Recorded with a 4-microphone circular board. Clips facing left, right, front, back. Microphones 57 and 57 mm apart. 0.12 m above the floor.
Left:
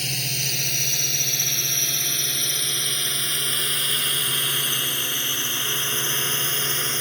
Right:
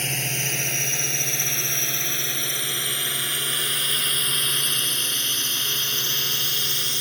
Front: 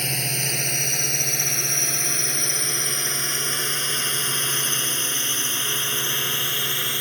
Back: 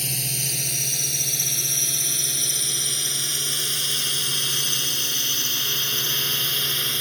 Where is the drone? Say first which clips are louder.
Right 2 dB, front 4 dB; 35° right; by 7.0 s 65° left.